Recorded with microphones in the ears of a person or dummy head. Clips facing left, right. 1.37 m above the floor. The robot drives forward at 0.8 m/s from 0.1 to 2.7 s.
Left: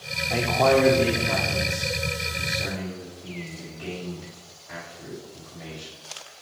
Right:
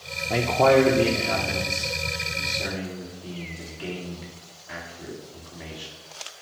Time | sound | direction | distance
0.3 | a man speaking | 30° right (ahead or behind) | 0.5 m